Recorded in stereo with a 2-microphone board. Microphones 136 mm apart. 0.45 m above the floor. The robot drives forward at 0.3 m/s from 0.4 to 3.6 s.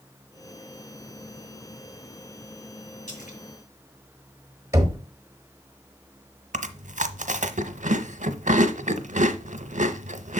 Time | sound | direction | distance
3.1 | a splash | 70° left (ahead or behind) | 1.8 m
4.7 | knocking | 25° right (ahead or behind) | 1.1 m
6.5 | chewing | 70° right (ahead or behind) | 0.7 m